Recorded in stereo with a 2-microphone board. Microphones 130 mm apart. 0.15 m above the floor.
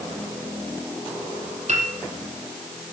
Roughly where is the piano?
Right.